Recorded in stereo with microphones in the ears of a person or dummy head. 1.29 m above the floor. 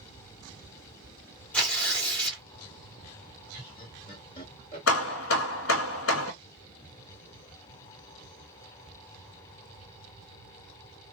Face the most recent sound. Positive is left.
turn(degrees=80)